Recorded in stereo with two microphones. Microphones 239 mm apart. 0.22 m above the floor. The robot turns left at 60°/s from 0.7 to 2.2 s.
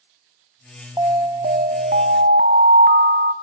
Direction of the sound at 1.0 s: 25° right.